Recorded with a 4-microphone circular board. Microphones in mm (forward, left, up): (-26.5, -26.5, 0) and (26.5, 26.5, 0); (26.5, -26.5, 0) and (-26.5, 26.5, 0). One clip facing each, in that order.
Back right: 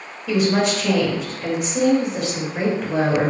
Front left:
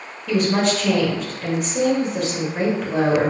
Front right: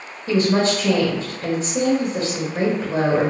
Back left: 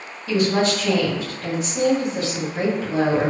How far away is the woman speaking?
About 0.9 m.